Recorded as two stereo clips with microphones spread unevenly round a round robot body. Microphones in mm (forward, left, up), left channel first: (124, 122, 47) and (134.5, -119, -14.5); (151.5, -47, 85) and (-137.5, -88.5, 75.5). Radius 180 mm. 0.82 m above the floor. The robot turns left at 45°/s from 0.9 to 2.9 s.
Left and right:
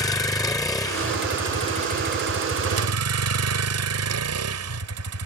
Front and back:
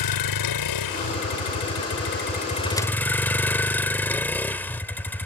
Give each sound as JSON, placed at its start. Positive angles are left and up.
{"t": 0.0, "sound": "a vehicle", "azimuth_deg": 15}